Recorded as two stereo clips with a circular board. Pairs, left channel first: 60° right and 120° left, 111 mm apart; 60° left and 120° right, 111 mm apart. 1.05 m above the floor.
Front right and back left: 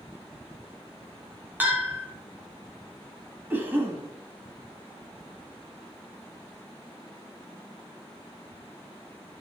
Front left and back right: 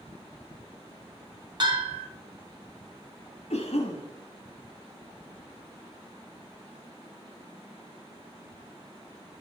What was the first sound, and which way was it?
A bell, 165° right.